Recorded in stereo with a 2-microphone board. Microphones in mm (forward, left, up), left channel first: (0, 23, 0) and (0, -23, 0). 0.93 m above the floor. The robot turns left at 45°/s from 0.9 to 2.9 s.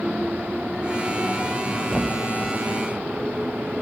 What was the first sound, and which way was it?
A thud, 5° left (ahead or behind).